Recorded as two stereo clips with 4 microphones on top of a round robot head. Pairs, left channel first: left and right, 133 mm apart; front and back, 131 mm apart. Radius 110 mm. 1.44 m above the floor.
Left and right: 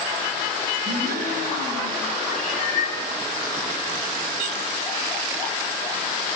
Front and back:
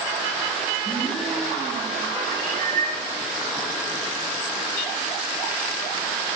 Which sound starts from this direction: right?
A gasp, at 0.8 s.